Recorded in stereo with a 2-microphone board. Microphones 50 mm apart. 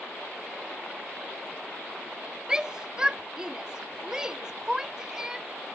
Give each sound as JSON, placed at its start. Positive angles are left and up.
{"t": 2.5, "sound": "a shout", "side_deg": -15}